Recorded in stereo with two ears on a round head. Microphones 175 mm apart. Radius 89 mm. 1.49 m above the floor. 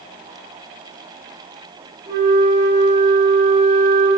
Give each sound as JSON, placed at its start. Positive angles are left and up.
{"t": 2.1, "sound": "a flute", "side_deg": -50, "distance_m": 4.0}